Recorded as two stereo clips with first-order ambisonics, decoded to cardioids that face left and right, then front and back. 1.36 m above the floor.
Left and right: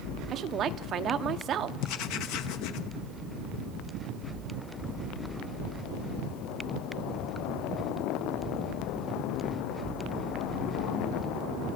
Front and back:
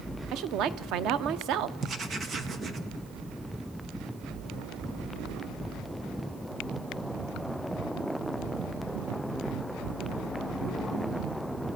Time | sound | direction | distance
0.3 | a woman speaking | 145° right | 0.8 m
1.8 | writing | 115° left | 1.1 m